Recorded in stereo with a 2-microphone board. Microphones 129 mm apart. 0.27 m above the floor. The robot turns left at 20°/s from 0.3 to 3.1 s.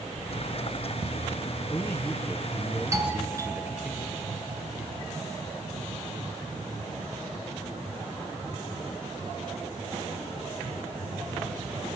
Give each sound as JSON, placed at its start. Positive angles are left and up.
{"t": 1.6, "sound": "a man speaking", "azimuth_deg": 15, "distance_m": 4.5}
{"t": 2.9, "sound": "a doorbell", "side_deg": -25, "distance_m": 5.0}